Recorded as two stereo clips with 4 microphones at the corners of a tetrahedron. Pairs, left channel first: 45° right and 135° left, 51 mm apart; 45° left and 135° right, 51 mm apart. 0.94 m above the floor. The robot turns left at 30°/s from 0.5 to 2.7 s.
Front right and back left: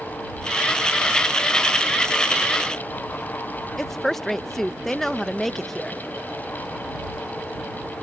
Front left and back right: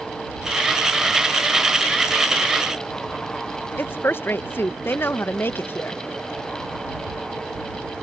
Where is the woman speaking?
35° left.